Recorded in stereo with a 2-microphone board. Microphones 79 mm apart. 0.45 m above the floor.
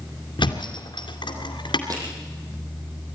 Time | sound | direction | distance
0.4 | a thud | 80° left | 2.5 m
1.9 | crushing | 50° right (ahead or behind) | 5.5 m